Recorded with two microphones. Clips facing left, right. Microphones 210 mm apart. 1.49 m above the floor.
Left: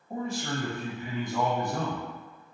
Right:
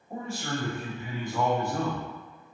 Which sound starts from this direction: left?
A man speaking, at 0.1 s.